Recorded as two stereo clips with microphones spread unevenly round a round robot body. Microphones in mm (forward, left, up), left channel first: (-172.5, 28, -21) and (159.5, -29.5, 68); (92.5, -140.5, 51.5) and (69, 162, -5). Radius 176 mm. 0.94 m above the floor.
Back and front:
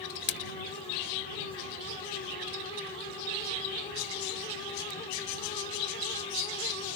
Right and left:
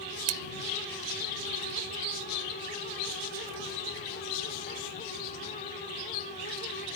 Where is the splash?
110° left.